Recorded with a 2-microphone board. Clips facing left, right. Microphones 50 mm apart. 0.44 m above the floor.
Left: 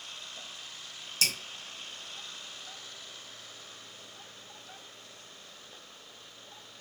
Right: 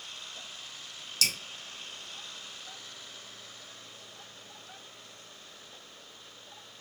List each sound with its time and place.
1.2 s dripping: 35° left (ahead or behind), 1.1 m